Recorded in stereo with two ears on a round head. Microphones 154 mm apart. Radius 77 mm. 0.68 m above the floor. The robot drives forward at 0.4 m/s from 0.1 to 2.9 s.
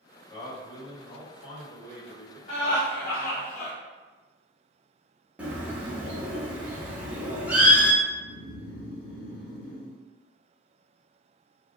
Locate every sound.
0.3 s a man speaking: 30° left (ahead or behind), 1.2 m; by 2.4 s 25° left (ahead or behind), 1.3 m
2.5 s laughter: 45° left (ahead or behind), 0.7 m
5.4 s a bird: 5° right (ahead or behind), 0.6 m
8.0 s snoring: 65° left (ahead or behind), 0.6 m